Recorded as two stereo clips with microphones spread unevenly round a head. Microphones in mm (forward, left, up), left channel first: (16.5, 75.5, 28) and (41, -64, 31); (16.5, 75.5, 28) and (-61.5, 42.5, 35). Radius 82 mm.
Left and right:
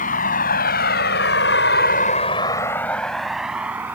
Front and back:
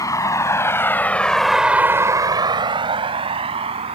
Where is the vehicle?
70° left; by 4.0 s 160° right.